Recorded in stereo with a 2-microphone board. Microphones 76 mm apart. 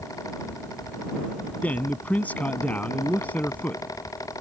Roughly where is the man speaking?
Centre.